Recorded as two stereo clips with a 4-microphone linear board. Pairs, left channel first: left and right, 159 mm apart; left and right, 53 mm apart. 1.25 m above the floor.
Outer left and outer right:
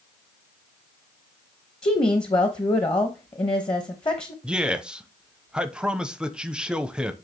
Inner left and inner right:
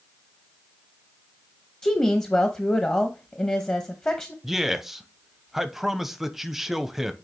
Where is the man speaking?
5° right (ahead or behind), 0.7 m.